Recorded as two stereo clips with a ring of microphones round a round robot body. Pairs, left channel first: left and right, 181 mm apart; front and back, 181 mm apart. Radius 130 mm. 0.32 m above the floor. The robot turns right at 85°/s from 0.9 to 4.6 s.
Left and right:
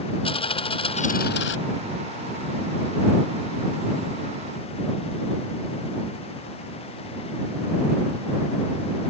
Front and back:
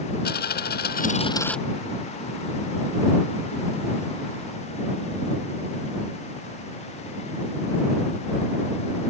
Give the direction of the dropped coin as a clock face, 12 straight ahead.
11 o'clock.